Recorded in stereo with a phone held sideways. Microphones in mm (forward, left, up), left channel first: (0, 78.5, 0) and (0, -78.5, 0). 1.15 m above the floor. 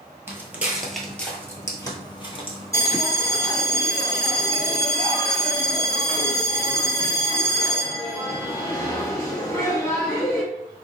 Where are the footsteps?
15° right (ahead or behind), 1.2 m; by 3.5 s 50° left (ahead or behind), 1.7 m.